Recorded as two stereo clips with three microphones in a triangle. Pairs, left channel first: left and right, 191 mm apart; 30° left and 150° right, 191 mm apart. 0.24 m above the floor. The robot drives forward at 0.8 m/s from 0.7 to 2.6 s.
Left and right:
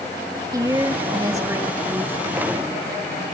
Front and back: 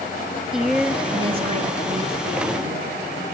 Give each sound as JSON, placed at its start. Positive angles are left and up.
{"t": 0.5, "sound": "a woman speaking", "azimuth_deg": -70, "distance_m": 0.9}